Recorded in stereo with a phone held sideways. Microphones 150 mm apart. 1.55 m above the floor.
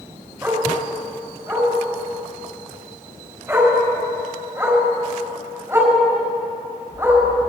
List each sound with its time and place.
0.4 s a dog barking: 20° right (ahead or behind), 4.5 m